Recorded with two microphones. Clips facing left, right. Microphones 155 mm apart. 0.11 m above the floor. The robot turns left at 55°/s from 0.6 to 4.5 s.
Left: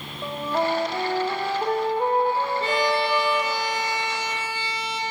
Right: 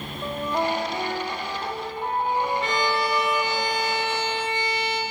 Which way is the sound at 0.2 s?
170° left.